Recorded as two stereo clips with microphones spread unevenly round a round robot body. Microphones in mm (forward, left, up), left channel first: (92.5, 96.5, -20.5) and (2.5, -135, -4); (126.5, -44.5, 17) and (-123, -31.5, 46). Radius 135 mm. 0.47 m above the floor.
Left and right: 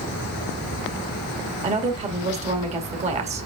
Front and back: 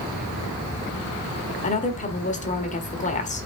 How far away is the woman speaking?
About 1.7 m.